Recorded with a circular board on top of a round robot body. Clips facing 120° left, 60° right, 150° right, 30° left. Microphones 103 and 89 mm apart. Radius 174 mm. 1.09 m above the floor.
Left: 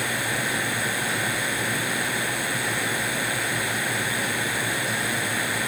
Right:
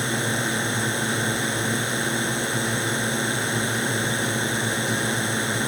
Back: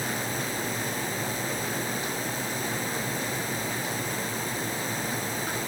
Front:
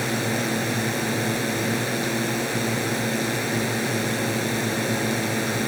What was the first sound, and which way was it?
A drone, 5° left.